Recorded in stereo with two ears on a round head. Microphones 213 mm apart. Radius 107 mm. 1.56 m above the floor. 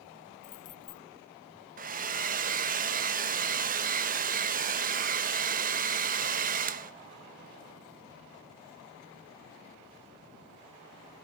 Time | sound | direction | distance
0.4 | keys jangling | 35° left (ahead or behind) | 0.7 m
1.8 | a hair dryer | 40° right (ahead or behind) | 0.9 m